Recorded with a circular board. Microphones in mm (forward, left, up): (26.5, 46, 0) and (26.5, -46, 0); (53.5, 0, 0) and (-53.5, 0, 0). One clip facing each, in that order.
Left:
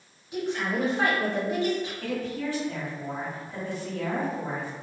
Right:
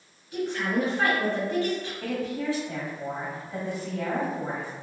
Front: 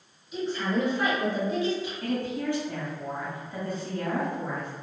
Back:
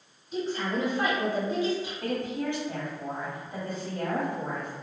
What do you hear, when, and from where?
0.3 s a woman speaking: 155° left, 1.4 m
2.0 s a woman speaking: 135° right, 1.2 m